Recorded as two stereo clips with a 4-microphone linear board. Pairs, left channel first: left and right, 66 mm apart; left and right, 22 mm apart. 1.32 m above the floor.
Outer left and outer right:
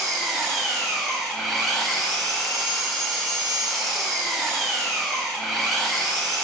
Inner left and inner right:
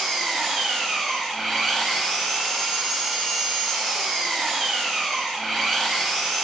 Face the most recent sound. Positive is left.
turn(degrees=0)  # may be behind; listen again after turning